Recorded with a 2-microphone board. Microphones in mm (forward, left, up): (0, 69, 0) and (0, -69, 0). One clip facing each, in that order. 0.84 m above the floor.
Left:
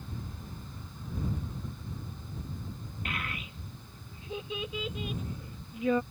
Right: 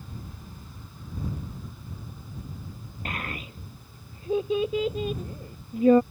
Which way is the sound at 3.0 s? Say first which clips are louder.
Right 4 dB; 40° right (ahead or behind).